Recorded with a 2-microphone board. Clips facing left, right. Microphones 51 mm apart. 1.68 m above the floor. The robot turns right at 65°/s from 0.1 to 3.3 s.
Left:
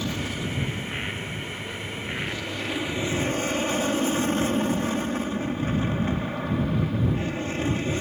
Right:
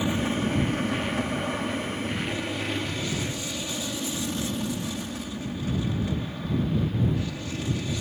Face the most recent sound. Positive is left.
turn(degrees=35)  # may be behind; listen again after turning